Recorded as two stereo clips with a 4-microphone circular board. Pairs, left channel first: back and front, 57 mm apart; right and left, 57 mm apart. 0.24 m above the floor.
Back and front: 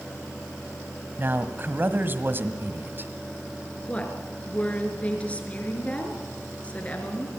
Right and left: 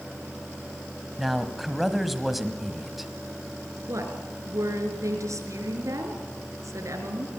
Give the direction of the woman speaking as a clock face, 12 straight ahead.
8 o'clock.